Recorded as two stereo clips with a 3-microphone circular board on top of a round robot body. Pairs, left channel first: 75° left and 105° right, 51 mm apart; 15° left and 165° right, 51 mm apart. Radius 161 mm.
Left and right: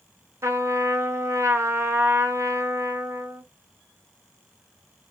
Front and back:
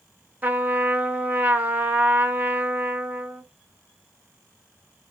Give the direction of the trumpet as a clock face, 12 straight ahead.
4 o'clock.